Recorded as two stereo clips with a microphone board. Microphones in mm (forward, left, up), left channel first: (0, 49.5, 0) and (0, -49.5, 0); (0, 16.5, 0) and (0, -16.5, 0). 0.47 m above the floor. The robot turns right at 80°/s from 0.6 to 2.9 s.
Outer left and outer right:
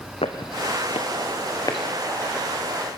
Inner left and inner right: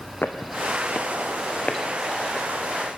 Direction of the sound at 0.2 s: 75° left (ahead or behind).